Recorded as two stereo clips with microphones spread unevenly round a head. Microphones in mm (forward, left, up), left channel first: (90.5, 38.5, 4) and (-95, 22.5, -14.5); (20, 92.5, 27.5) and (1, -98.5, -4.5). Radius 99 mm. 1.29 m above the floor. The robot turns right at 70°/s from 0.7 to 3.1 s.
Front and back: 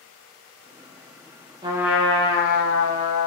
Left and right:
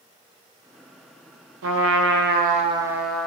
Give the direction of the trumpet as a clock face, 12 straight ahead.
4 o'clock.